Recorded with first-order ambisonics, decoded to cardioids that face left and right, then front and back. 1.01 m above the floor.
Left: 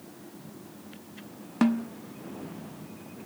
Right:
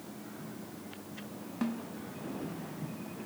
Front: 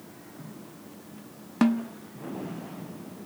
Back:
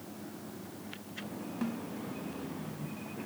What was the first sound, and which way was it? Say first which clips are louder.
A snare drum: left 11 dB, front 14 dB; 40° left.